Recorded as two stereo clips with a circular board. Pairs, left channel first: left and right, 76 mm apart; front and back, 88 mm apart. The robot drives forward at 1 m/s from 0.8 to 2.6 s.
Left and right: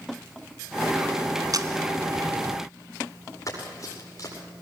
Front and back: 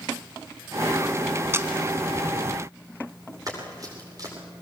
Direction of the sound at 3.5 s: 135° left.